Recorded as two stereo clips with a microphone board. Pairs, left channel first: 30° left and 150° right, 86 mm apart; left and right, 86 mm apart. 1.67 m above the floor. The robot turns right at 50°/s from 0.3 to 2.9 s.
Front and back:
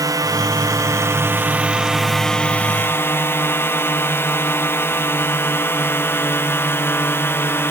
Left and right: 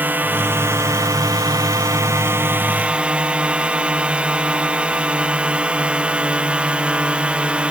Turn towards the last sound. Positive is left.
turn(degrees=-20)